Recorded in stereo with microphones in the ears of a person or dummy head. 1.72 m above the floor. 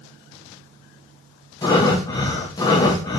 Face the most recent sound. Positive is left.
turn(degrees=20)  # may be behind; listen again after turning